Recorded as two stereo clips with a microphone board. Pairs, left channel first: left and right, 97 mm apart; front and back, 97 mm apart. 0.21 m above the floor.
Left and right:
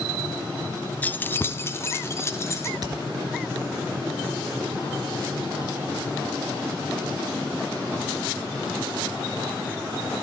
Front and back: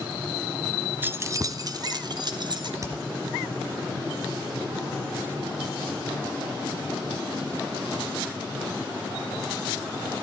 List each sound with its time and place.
1.0 s keys jangling: 140° left, 0.7 m; by 2.7 s 150° left, 2.0 m
2.8 s hammering: 130° right, 3 m